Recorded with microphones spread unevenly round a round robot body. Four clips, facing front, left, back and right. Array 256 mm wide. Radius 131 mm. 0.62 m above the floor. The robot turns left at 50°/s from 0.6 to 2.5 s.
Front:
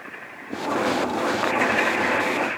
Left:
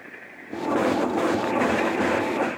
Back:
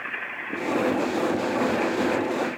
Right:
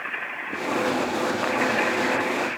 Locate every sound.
Only background noise.